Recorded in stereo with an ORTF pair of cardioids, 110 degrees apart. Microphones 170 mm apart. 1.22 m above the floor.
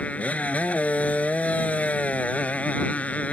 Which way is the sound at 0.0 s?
10° left.